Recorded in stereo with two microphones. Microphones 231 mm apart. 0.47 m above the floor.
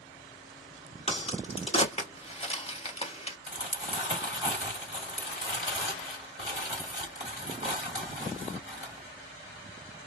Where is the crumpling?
55° left (ahead or behind), 2.5 m.